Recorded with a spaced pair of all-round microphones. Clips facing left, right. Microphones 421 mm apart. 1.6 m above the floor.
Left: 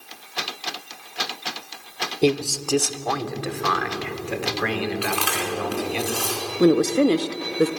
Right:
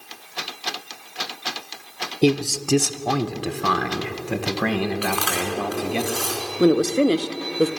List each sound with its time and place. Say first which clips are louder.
2.2 s a man speaking: right 2 dB; 25° right (ahead or behind), 0.7 m; by 6.0 s 60° right (ahead or behind), 2.5 m
5.0 s chewing: right 1 dB; 45° left (ahead or behind), 4.5 m
6.6 s a woman speaking: even; 5° left (ahead or behind), 0.8 m